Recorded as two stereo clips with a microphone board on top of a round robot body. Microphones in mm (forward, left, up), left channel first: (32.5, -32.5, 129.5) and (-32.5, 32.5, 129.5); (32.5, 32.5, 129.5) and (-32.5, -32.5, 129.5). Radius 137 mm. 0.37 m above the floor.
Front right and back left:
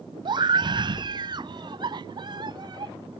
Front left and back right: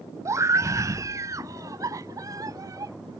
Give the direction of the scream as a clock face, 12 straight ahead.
6 o'clock.